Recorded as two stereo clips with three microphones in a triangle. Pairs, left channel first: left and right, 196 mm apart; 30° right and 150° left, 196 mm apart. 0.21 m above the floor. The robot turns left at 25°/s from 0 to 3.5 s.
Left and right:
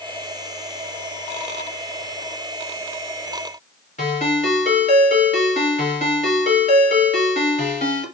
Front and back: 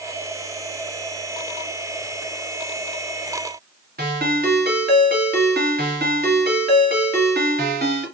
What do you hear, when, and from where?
4.0 s a ringtone: 130° left, 1.7 m